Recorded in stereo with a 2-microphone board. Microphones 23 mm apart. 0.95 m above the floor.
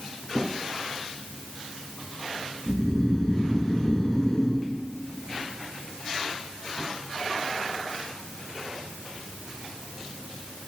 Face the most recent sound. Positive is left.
turn(degrees=30)  # may be behind; listen again after turning